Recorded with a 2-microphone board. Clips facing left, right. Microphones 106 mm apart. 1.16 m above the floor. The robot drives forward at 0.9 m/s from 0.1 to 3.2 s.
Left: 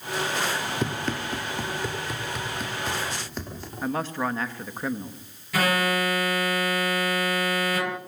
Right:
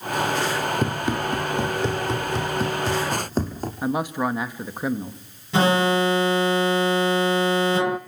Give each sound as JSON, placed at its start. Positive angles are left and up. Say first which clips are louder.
{"t": 0.8, "sound": "running footsteps", "louder": "right 5 dB", "side_deg": -10, "distance_m": 3.0}
{"t": 3.8, "sound": "a man speaking", "louder": "right 3 dB", "side_deg": -15, "distance_m": 1.9}
{"t": 5.5, "sound": "an alarm", "louder": "right 5 dB", "side_deg": -25, "distance_m": 1.2}